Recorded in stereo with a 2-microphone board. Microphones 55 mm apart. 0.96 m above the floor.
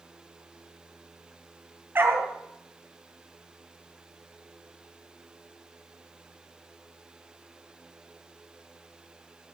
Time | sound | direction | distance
1.9 | a dog barking | 40° right (ahead or behind) | 3.5 m